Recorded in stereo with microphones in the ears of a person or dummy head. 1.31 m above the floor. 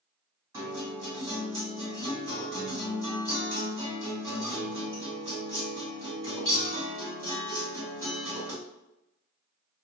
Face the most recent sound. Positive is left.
turn(degrees=-25)  # may be behind; listen again after turning